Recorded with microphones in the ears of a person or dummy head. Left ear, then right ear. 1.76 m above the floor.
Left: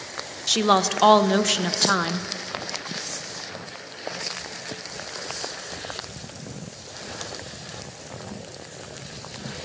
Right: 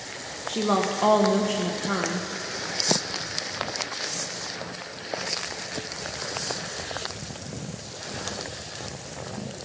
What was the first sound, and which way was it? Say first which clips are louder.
A woman speaking: left 5 dB; 65° left (ahead or behind).